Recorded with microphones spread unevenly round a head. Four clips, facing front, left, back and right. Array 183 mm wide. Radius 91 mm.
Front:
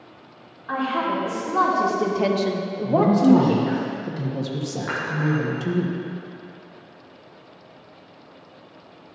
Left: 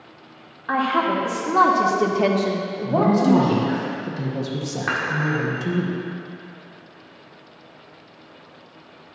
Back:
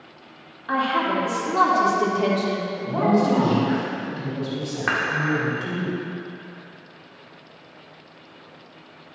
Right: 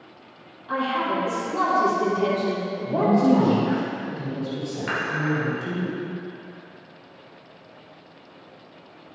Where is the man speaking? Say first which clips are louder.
Left 1 dB, front 4 dB; 40° left, 1.5 m.